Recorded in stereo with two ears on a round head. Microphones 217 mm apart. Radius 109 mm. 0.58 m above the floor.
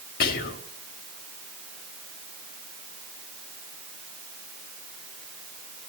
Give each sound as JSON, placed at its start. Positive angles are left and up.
{"t": 0.2, "sound": "whispering", "side_deg": 40, "distance_m": 1.2}